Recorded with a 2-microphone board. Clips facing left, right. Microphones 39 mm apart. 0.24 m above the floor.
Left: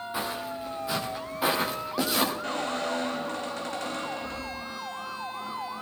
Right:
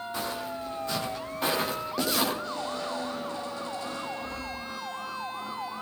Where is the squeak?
60° left (ahead or behind), 3 m.